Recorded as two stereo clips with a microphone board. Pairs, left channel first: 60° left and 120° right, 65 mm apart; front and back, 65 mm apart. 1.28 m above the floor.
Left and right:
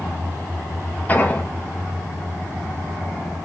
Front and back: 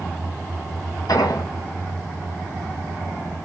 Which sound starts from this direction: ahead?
An explosion, at 1.1 s.